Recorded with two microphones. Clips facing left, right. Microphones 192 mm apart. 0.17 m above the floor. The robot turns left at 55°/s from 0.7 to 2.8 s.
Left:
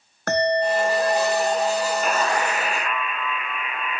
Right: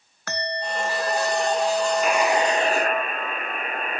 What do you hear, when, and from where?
0.3 s a bell: 55° left; by 3.0 s 65° right
2.0 s a buzzer: straight ahead; by 4.0 s 45° right